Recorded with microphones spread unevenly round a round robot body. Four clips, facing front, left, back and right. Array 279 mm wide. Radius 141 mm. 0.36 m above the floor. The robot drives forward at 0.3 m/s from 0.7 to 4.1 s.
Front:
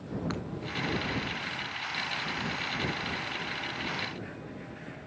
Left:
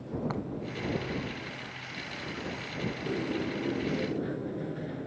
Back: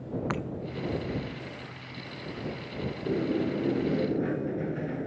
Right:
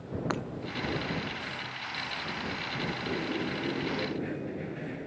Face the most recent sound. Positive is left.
turn(degrees=180)